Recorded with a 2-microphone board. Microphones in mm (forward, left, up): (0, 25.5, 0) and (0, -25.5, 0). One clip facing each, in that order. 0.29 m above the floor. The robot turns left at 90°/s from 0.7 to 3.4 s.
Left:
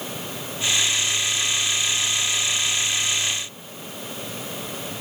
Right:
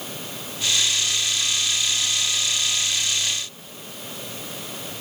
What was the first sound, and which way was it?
Only background noise.